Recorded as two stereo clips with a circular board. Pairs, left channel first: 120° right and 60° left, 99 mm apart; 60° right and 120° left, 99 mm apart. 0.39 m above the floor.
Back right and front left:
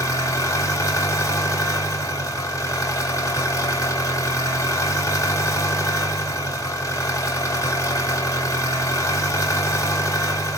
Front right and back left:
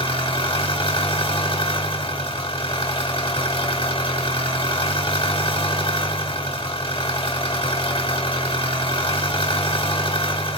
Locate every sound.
0.0 s an engine running: 65° right, 1.1 m